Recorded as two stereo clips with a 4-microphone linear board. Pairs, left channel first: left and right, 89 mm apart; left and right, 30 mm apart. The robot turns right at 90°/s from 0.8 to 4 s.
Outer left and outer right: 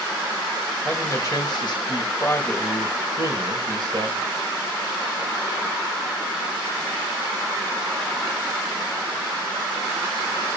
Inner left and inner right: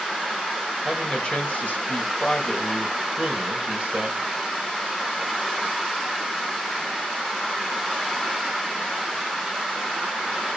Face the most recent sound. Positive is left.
turn(degrees=-65)